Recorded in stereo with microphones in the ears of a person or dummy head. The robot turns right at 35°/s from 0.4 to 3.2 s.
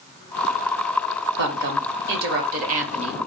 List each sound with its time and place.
1.4 s a woman speaking: 95° right, 1.0 m; by 3.2 s 35° right, 1.0 m